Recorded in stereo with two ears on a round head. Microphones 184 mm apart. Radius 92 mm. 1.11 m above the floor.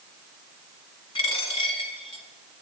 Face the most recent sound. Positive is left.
turn(degrees=25)  # may be behind; listen again after turning